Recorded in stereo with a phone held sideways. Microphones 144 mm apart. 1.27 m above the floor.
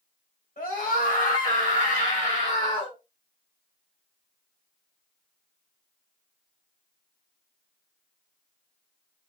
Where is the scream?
80° left, 1.3 m; by 3.0 s 45° left (ahead or behind), 1.4 m.